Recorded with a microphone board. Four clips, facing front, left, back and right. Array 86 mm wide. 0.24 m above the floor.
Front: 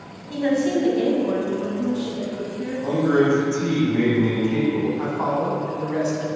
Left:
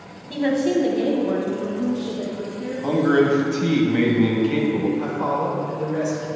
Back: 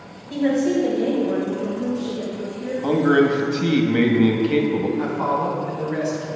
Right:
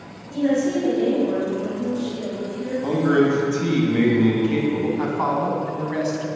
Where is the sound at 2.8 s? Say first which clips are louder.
Left 1 dB, back 2 dB; 170° left, 1.1 m.